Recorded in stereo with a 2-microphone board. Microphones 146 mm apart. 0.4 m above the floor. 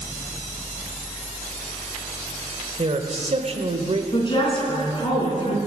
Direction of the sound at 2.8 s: 50° right (ahead or behind).